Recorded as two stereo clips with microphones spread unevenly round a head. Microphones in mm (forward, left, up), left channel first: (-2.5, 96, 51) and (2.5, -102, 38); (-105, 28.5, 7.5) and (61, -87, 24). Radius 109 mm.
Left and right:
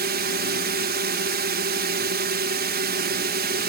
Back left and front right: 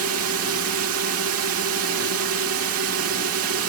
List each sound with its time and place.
0.0 s a drone: 45° right